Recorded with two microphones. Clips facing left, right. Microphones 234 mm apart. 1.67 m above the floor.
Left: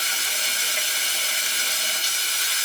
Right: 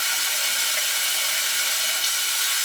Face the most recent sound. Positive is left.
turn(degrees=20)  # may be behind; listen again after turning